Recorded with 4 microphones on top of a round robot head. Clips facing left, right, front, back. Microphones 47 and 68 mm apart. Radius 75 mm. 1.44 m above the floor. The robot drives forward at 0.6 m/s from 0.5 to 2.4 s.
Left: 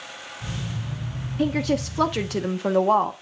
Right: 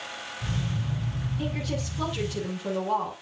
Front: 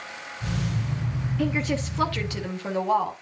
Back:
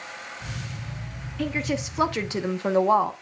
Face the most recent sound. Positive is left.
turn(degrees=120)